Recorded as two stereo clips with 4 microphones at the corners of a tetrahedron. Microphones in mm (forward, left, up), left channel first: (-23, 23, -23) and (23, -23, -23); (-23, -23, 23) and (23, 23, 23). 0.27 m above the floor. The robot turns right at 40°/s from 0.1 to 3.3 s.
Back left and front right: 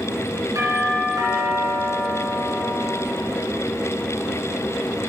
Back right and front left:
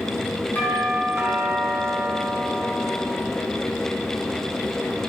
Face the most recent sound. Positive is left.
turn(degrees=35)